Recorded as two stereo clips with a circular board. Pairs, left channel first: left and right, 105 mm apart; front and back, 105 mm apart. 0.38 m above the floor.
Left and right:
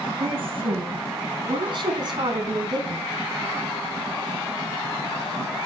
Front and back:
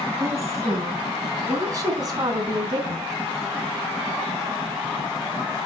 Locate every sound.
0.2 s a woman speaking: 120° right, 5 m; by 3.1 s 140° right, 3.5 m